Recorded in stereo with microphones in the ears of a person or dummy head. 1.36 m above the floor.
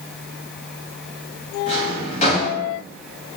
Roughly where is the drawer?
Left.